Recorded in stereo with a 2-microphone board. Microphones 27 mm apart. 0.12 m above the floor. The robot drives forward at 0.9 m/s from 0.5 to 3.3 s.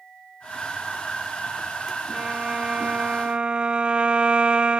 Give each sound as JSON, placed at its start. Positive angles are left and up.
{"t": 2.1, "sound": "a violin", "side_deg": -40}